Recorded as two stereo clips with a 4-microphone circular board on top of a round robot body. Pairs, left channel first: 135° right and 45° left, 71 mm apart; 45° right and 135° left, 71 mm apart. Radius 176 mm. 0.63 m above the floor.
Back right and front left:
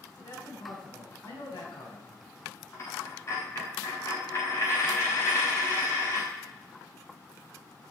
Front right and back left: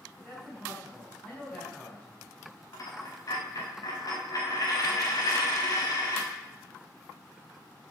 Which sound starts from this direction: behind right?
A man speaking, at 0.2 s.